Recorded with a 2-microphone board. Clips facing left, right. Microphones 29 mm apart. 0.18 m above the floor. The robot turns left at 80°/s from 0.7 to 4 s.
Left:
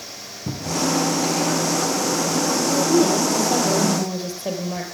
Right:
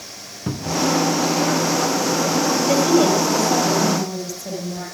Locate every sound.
0.5 s a cupboard door: 45° right (ahead or behind), 1.3 m; by 0.9 s 50° right (ahead or behind), 1.3 m
2.7 s a woman speaking: 120° right, 4.5 m; by 4.8 s 130° left, 4.5 m